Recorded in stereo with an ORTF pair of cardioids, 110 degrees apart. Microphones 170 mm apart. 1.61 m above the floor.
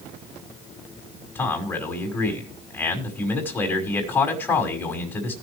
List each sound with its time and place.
1.4 s a man speaking: 15° left, 5 m